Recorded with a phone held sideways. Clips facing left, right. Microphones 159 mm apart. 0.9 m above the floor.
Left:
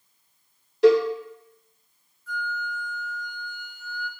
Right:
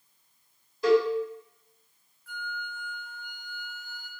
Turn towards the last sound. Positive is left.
turn(degrees=-55)  # may be behind; listen again after turning